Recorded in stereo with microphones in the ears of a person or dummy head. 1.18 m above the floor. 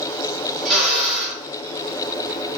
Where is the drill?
Centre (ahead or behind), 3.5 m.